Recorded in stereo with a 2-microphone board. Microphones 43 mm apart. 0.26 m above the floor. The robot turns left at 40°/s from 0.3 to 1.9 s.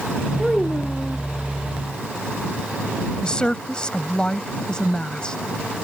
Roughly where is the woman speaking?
Left.